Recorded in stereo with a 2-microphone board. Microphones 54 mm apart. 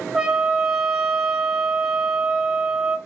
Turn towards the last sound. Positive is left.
turn(degrees=-10)  # may be behind; listen again after turning